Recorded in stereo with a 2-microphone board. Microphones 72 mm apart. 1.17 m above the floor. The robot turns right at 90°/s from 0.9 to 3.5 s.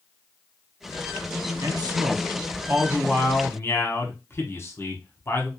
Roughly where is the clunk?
No clunk in this recording.